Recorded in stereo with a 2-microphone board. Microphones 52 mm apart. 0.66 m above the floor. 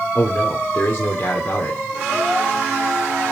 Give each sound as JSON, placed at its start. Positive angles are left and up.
{"t": 0.1, "sound": "a man speaking", "side_deg": 35, "distance_m": 1.9}